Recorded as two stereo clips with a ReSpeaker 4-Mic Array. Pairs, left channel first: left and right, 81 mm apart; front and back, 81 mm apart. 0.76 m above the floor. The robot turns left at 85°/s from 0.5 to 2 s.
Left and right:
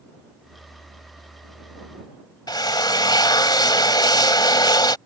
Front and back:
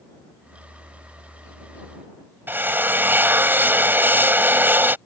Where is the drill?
115° left.